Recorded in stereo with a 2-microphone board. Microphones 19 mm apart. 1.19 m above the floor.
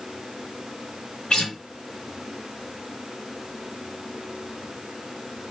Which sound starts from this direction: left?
A guitar, at 1.3 s.